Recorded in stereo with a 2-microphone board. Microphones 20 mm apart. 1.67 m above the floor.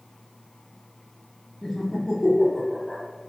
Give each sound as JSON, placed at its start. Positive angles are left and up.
{"t": 1.6, "sound": "laughter", "side_deg": 30, "distance_m": 1.2}